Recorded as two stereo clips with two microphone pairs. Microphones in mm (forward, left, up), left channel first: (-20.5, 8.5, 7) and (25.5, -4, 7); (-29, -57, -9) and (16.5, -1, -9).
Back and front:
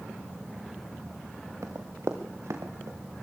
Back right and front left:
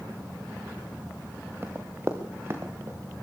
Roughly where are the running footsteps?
Ahead.